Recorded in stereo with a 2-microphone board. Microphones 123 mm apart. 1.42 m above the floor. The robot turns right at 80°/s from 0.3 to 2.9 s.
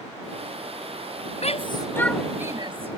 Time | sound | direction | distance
1.4 | a shout | 65° left (ahead or behind) | ?